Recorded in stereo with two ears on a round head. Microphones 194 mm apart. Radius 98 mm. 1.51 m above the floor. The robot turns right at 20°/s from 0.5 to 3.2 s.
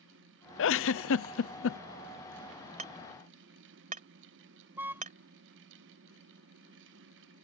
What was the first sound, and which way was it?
A giggle, 60° left (ahead or behind).